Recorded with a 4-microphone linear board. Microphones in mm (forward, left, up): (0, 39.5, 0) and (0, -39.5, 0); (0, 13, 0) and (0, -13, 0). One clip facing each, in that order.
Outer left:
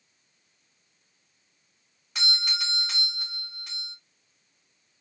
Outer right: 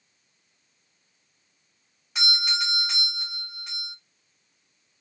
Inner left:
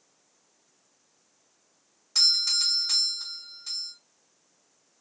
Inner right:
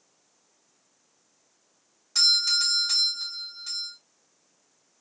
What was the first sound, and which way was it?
A doorbell, 10° right (ahead or behind).